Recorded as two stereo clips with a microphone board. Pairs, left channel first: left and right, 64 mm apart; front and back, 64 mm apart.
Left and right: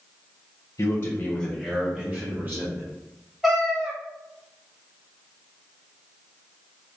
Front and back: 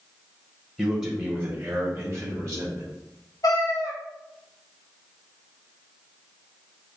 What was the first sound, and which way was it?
A man speaking, 90° left.